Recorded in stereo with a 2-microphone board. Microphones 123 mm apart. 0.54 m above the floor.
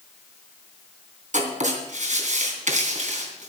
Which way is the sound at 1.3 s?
85° right.